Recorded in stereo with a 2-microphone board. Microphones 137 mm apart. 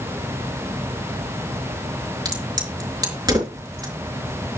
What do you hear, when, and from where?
2.2 s a crack: 30° right (ahead or behind), 4 m